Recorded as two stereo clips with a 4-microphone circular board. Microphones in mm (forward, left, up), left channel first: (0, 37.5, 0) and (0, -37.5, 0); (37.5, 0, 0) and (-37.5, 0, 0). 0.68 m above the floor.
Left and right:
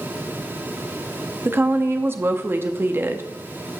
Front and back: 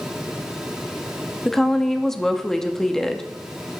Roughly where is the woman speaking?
Right.